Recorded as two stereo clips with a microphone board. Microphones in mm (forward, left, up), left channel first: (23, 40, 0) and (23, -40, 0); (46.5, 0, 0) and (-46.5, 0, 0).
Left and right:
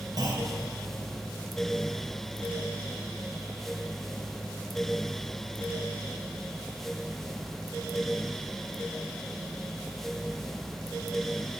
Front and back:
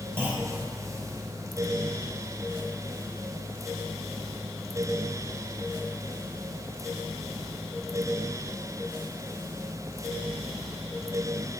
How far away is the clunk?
About 3 m.